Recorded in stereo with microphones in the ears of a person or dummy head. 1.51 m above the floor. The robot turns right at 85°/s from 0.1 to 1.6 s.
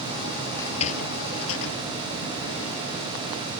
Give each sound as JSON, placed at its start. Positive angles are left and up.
{"t": 0.6, "sound": "a sliding door", "side_deg": 15}